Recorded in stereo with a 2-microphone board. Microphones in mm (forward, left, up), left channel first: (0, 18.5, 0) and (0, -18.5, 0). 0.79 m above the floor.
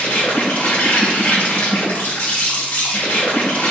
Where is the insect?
65° left (ahead or behind), 1.4 m.